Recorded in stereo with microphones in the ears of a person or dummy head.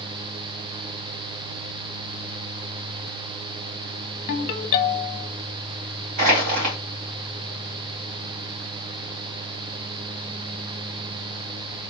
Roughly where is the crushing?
Right.